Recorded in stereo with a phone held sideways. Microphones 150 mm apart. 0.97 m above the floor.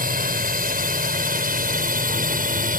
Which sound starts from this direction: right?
A drone, at 0.0 s.